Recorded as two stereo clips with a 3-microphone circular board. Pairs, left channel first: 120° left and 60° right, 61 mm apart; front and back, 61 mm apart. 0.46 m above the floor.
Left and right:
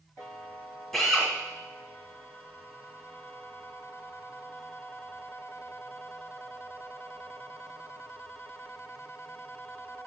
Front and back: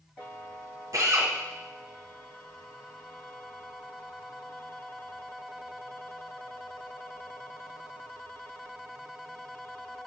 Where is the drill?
160° right, 1.6 m.